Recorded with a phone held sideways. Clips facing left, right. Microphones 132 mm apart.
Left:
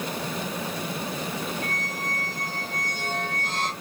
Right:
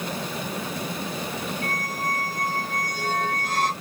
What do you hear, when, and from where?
1.6 s a squeak: 25° left (ahead or behind), 1.9 m